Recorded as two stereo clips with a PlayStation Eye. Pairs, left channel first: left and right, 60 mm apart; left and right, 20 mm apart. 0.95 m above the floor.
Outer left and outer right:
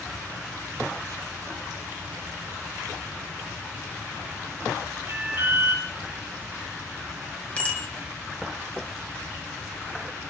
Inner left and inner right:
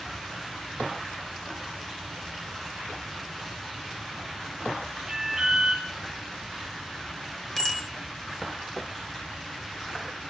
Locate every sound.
5.1 s an alarm: 40° right (ahead or behind), 5 m
7.6 s a bicycle bell: 25° left (ahead or behind), 3.5 m